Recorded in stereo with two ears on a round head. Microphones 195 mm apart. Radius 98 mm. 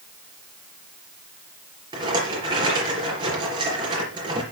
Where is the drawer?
I don't hear a drawer.